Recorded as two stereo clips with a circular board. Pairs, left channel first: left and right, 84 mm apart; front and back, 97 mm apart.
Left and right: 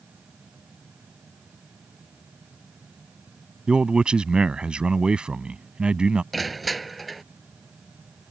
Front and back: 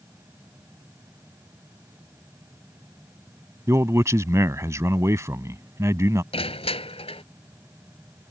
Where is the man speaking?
160° right.